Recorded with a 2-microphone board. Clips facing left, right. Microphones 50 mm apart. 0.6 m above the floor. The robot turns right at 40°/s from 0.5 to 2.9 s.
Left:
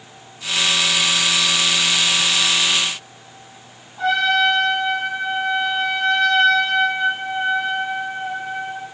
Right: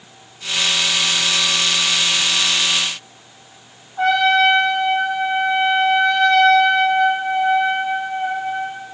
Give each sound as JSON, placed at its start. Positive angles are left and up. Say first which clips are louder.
{"t": 4.0, "sound": "a trumpet", "louder": "right 3 dB", "side_deg": -50, "distance_m": 1.2}